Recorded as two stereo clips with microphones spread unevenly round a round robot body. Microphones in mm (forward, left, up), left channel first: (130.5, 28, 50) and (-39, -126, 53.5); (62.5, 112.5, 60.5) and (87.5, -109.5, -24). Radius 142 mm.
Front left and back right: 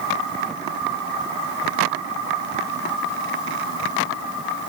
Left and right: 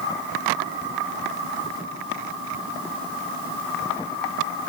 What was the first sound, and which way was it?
Only background noise.